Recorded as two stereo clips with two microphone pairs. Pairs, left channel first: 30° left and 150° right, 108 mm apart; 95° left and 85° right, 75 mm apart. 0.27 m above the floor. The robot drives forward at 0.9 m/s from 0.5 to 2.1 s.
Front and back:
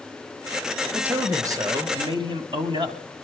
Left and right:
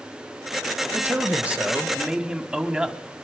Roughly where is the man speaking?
Right.